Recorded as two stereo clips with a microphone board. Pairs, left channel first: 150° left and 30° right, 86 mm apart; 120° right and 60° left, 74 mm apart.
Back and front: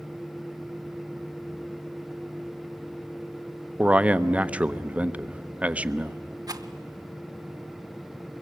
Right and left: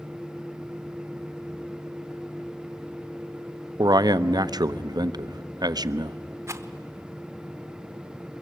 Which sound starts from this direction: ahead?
A rattle, at 6.5 s.